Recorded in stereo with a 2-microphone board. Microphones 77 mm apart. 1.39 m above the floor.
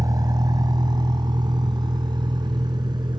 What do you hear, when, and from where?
0.0 s a vehicle: 55° right (ahead or behind); by 3.2 s 80° right